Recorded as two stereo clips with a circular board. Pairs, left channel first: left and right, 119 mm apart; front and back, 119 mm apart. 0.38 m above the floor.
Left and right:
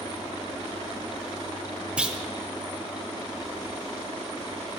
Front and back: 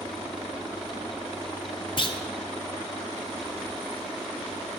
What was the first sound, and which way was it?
A clunk, 10° right.